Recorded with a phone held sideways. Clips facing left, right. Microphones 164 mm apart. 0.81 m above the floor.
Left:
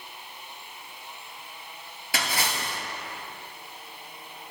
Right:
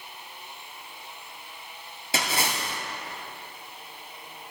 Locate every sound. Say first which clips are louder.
2.1 s a splash: right 1 dB; 25° right (ahead or behind), 2.5 m